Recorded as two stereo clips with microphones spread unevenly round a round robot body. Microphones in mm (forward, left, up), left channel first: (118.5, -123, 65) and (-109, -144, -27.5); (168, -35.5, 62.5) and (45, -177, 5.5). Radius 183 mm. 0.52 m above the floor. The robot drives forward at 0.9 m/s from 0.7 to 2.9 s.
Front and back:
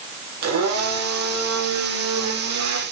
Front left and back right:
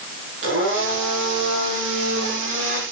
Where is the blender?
Straight behind, 5 m.